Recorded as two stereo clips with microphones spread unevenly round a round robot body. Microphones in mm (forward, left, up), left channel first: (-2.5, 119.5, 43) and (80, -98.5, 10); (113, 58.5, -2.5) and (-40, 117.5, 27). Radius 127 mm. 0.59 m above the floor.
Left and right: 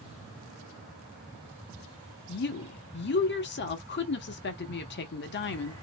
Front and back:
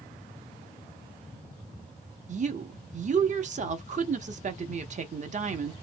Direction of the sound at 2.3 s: 130° left.